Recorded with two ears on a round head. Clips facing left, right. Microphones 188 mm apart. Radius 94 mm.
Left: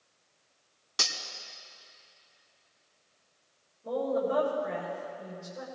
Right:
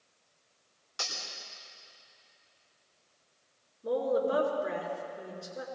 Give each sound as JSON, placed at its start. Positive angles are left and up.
{"t": 1.0, "sound": "cutlery clinking", "side_deg": 65, "distance_m": 2.0}
{"t": 3.8, "sound": "a woman speaking", "side_deg": -70, "distance_m": 5.0}